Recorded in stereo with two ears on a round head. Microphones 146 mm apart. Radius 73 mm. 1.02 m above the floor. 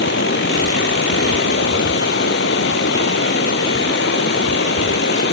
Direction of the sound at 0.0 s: 75° left (ahead or behind).